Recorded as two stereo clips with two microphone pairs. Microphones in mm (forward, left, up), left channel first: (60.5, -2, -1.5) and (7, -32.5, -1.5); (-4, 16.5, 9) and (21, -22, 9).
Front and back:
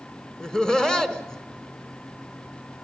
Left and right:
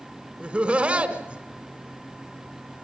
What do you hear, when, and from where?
0.4 s laughter: 35° right, 1.5 m